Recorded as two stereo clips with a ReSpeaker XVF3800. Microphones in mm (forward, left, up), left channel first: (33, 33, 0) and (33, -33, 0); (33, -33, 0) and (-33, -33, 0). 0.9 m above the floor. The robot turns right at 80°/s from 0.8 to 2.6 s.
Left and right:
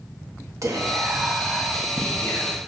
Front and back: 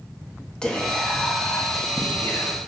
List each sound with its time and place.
0.6 s whispering: 75° right, 1.5 m; by 2.6 s 70° left, 1.5 m